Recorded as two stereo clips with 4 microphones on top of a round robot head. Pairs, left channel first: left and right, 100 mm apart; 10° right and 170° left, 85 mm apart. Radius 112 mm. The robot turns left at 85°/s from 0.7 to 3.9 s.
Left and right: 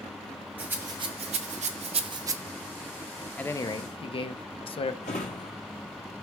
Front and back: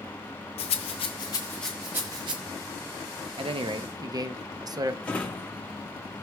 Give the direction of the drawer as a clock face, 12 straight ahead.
10 o'clock.